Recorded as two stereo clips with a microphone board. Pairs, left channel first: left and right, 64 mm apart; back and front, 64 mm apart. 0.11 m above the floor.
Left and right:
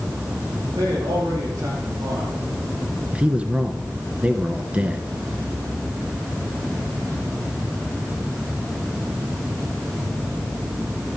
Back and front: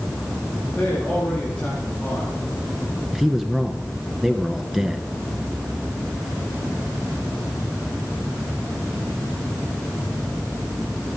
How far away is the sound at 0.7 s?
About 9 m.